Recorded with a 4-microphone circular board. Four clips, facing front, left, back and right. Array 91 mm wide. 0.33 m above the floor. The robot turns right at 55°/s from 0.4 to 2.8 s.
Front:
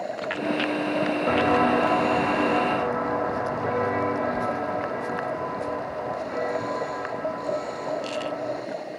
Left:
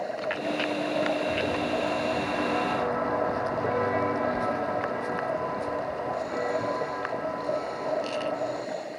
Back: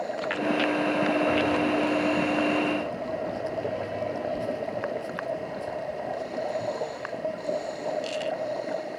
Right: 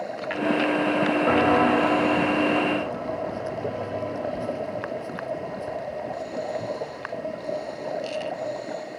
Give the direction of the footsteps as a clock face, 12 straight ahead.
2 o'clock.